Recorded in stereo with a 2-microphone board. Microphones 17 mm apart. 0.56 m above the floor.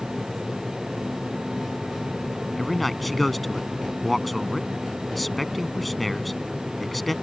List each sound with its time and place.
2.6 s a man speaking: 5° left (ahead or behind)